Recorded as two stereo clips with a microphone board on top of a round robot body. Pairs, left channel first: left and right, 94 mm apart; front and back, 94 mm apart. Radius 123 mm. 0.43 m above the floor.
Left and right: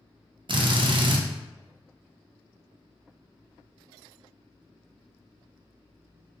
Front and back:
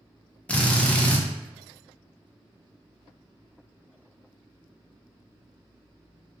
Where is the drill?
75° right, 0.6 m.